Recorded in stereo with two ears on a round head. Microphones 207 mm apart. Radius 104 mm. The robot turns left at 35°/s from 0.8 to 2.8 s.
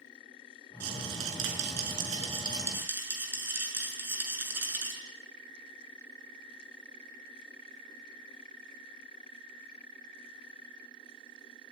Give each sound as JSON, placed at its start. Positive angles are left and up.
{"t": 0.8, "sound": "a rattle", "azimuth_deg": -100, "distance_m": 6.5}